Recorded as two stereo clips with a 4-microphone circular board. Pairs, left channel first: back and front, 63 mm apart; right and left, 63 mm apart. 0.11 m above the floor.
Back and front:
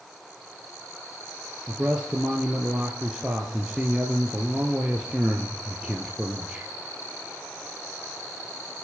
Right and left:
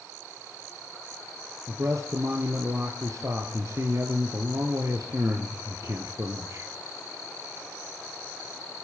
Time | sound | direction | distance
1.7 | a man speaking | 75° left | 1.9 m